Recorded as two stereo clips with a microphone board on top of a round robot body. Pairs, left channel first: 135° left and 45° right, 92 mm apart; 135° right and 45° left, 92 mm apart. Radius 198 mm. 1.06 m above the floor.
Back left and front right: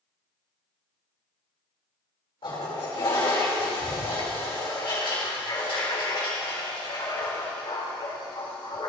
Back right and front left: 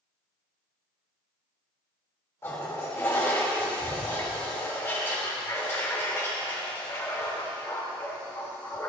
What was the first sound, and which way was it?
A toilet flushing, 165° left.